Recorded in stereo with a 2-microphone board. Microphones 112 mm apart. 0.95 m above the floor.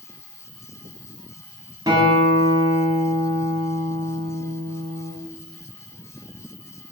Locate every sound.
0.0 s an insect: 30° left (ahead or behind), 1.4 m
1.9 s a guitar: 30° right (ahead or behind), 2.5 m